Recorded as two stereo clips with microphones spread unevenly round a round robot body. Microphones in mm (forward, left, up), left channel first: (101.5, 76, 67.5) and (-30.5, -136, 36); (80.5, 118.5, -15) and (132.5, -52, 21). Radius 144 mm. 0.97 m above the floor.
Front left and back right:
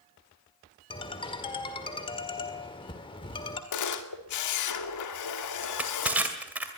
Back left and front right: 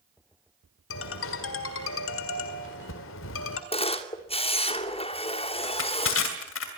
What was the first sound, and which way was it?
A ringtone, 130° left.